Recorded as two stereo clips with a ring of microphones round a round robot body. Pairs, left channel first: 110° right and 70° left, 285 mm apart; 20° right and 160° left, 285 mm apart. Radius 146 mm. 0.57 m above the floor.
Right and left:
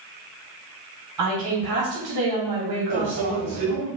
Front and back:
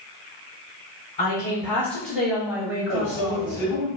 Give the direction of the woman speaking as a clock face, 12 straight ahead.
10 o'clock.